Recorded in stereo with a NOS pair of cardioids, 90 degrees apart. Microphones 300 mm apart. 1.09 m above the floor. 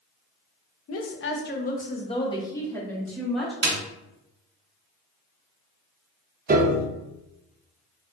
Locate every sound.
0.9 s a woman speaking: 55° left, 0.9 m; by 3.5 s straight ahead, 2.0 m
3.6 s a snare drum: 40° right, 1.3 m
6.5 s a piano: 30° right, 0.9 m